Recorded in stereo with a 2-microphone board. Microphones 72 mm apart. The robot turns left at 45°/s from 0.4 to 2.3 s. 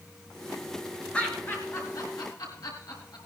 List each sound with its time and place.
1.1 s laughter: 15° left (ahead or behind), 4.5 m; by 3.2 s 65° left (ahead or behind), 4.5 m